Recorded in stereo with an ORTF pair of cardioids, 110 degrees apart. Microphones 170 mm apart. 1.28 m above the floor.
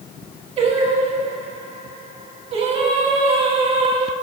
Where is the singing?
35° right, 1.7 m.